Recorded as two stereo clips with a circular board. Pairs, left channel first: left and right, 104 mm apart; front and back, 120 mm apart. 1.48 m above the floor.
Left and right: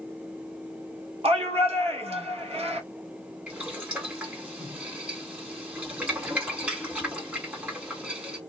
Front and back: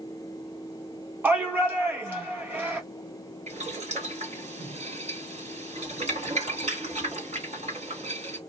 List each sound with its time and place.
1.2 s a shout: 105° right, 1.8 m
3.5 s boiling: 165° right, 2 m